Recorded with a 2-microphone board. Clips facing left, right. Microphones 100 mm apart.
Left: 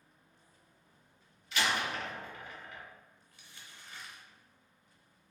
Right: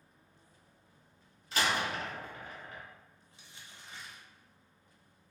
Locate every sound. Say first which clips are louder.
1.5 s a door slam: right 1 dB; 40° right (ahead or behind), 0.6 m
3.3 s crumpling: right 1 dB; 25° right (ahead or behind), 0.8 m